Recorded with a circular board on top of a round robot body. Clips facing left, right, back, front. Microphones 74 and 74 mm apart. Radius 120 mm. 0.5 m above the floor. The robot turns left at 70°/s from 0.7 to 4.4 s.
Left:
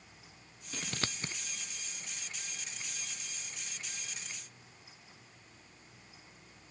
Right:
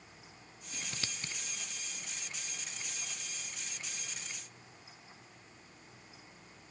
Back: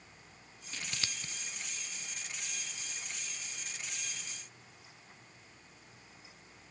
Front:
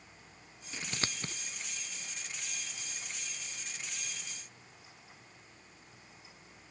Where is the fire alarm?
I don't hear a fire alarm.